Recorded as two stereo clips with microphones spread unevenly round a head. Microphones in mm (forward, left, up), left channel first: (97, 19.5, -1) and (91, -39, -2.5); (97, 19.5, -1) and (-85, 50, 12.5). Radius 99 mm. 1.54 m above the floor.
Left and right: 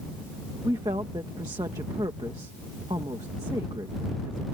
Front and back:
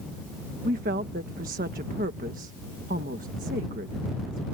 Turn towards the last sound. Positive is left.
turn(degrees=-140)